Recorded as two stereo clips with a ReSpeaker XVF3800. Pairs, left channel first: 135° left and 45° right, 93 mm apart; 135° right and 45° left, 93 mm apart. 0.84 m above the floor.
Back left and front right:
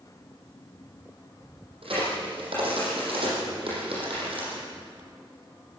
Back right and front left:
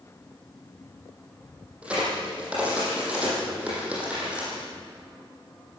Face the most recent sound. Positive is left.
turn(degrees=-30)